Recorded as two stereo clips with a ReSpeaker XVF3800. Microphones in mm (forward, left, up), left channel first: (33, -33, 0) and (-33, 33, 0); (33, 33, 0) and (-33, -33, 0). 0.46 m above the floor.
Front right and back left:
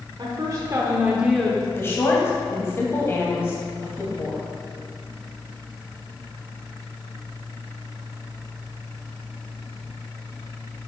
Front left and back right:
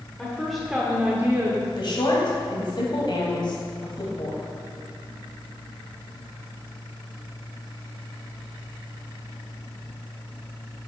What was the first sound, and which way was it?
A woman speaking, 125° left.